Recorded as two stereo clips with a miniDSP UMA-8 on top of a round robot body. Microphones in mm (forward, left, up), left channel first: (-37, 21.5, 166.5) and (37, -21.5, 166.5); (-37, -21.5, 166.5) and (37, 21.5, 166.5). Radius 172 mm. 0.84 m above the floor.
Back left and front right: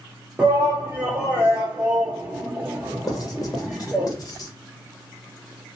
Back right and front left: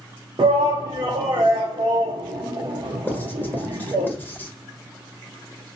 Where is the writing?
155° left, 1.1 m.